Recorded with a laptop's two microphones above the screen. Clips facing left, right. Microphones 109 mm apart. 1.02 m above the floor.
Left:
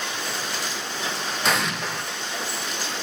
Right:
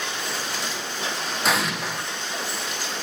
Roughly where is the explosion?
Centre.